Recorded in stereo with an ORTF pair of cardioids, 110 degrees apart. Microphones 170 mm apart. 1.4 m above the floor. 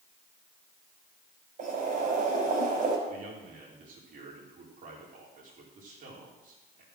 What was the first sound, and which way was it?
Boiling, 50° right.